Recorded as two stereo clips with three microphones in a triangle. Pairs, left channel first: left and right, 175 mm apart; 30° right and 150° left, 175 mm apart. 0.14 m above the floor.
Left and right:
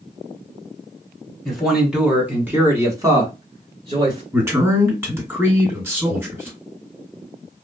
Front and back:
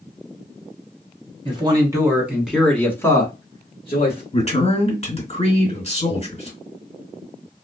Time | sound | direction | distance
1.4 | a man speaking | straight behind | 1.4 m
4.3 | a man speaking | 20° right | 2.0 m